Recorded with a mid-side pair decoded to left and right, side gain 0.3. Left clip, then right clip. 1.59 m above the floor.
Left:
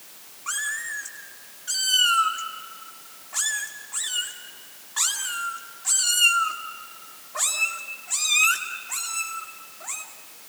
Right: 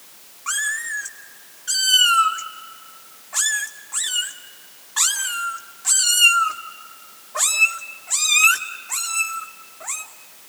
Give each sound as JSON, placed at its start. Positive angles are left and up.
{"t": 0.5, "sound": "a cat meowing", "azimuth_deg": -45, "distance_m": 2.5}